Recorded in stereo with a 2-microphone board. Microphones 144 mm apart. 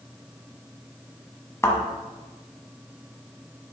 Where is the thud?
20° left (ahead or behind), 0.8 m.